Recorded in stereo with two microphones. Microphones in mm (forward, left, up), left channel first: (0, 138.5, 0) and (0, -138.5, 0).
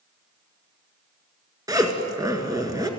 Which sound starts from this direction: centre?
A zipper, at 1.7 s.